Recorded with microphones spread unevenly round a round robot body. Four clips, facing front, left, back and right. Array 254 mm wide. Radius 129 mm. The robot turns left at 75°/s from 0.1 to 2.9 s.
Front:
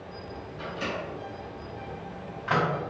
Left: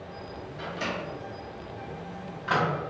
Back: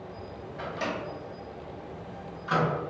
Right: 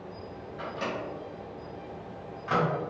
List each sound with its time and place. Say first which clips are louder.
0.6 s a microwave: even, back 1 dB; 175° right, 1.9 m; by 2.7 s 25° left, 1.9 m